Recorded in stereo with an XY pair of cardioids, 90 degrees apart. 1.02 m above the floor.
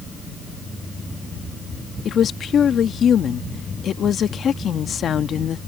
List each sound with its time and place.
2.0 s a woman speaking: 60° left